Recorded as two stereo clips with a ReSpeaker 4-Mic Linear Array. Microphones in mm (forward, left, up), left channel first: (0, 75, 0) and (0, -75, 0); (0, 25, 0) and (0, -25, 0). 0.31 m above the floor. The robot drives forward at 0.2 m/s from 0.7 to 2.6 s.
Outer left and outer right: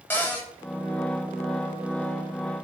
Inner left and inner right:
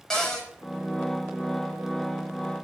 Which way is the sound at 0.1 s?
15° left (ahead or behind).